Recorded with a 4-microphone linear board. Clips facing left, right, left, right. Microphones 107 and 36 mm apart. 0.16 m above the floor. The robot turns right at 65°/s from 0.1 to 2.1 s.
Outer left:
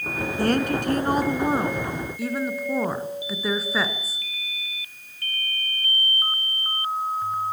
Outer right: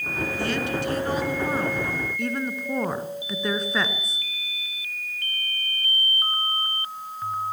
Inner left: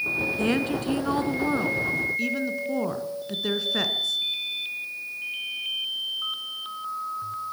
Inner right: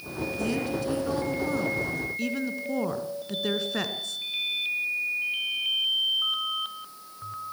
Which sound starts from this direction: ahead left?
A woman speaking, at 0.4 s.